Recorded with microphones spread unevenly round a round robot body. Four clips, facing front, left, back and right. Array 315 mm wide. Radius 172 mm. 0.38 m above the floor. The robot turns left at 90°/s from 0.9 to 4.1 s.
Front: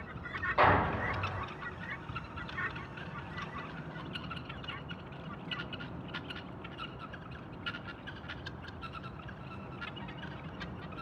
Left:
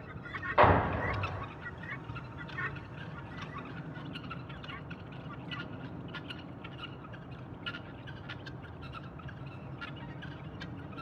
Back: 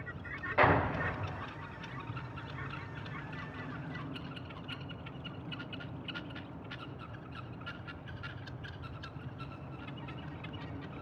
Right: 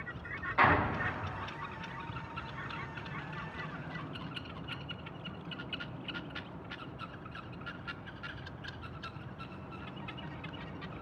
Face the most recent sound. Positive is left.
turn(degrees=175)